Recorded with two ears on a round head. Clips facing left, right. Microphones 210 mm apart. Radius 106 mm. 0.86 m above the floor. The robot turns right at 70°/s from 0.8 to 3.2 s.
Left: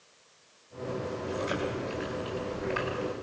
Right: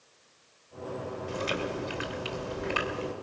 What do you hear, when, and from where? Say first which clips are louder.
1.3 s chewing: even; 150° right, 3 m; by 3.1 s 20° right, 3 m